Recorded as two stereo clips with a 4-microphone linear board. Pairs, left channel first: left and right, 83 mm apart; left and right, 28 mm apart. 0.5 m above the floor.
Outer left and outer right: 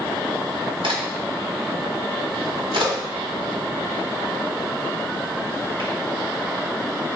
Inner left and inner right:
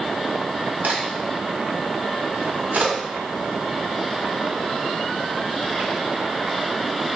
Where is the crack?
85° right, 1.3 m.